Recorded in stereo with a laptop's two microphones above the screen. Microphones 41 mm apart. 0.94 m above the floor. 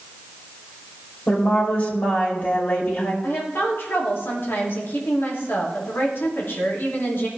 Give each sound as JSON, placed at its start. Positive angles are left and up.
{"t": 1.3, "sound": "a woman speaking", "side_deg": 55, "distance_m": 3.0}
{"t": 3.2, "sound": "a woman speaking", "side_deg": 70, "distance_m": 2.5}